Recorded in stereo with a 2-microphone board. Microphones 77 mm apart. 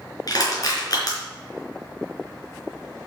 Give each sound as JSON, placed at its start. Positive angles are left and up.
{"t": 0.3, "sound": "crushing", "side_deg": 50, "distance_m": 4.5}